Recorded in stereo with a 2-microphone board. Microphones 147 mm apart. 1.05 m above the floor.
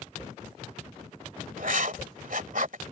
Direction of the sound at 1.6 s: 70° right (ahead or behind).